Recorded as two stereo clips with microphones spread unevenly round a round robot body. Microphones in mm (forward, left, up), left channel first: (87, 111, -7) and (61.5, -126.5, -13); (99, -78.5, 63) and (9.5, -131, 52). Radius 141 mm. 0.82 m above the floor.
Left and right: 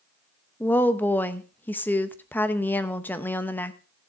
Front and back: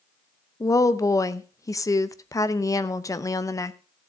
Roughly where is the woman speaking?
Ahead.